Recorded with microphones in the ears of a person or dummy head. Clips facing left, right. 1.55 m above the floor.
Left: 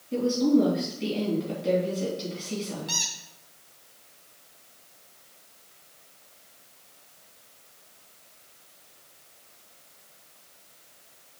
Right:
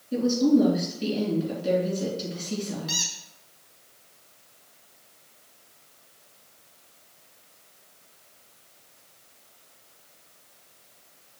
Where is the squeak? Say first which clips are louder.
Right 2 dB; 10° right (ahead or behind), 2.5 m.